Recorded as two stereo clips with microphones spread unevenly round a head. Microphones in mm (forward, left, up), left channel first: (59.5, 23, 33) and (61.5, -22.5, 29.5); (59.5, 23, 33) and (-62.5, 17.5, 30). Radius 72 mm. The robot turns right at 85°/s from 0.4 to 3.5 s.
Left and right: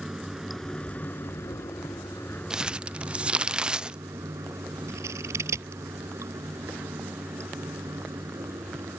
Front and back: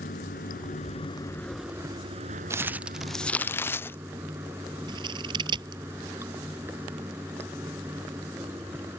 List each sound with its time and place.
0.0 s running water: 5° right; by 9.0 s 105° right
2.5 s crumpling: 135° right; by 4.0 s 50° right
4.9 s scissors: 120° right